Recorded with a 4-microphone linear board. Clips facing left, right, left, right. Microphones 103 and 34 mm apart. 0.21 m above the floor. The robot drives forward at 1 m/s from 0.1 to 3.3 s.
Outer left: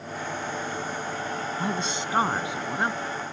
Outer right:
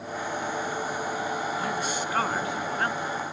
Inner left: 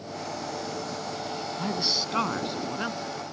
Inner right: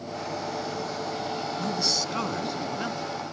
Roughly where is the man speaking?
Left.